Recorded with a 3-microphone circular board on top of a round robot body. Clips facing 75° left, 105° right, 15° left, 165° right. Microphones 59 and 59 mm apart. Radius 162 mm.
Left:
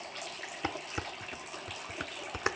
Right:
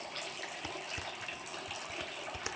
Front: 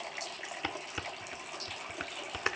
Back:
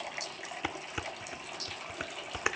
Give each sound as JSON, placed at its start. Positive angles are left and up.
{"t": 0.6, "sound": "dishes clattering", "azimuth_deg": 115, "distance_m": 1.0}